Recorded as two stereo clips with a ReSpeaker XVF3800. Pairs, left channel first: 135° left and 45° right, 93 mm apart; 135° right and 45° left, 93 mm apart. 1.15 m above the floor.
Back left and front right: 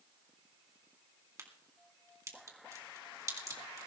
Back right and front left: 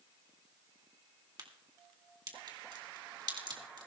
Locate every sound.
1.4 s a crack: 10° left, 2.5 m